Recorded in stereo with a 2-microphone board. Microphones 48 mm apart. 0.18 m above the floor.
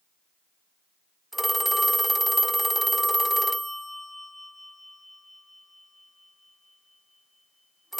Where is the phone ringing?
Centre (ahead or behind), 0.6 m.